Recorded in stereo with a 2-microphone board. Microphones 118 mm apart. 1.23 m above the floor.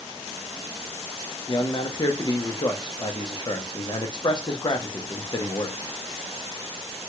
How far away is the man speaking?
About 0.7 m.